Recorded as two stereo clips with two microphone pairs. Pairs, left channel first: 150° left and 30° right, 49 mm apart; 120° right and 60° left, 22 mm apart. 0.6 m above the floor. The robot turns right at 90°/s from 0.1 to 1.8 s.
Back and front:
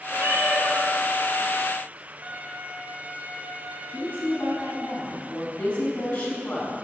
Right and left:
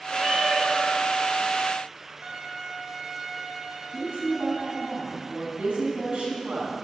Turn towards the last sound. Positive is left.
turn(degrees=90)